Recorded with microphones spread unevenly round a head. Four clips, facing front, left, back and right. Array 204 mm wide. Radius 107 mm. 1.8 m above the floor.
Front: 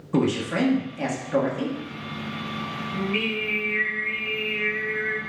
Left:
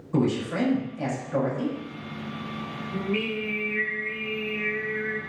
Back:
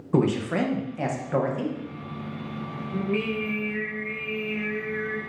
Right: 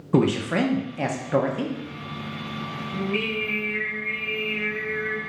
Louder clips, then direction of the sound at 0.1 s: Right 4 dB, even; 75° right.